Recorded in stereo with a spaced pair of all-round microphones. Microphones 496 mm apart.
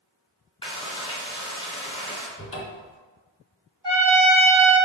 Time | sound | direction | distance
0.6 | frying | 10° left (ahead or behind) | 0.9 m
2.4 | a cupboard door | 25° left (ahead or behind) | 0.9 m
3.8 | a trumpet | 10° right (ahead or behind) | 1.7 m